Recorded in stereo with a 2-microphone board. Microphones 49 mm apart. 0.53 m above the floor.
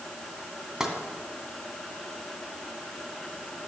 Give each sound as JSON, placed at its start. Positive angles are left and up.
{"t": 0.8, "sound": "tapping", "side_deg": -10, "distance_m": 2.5}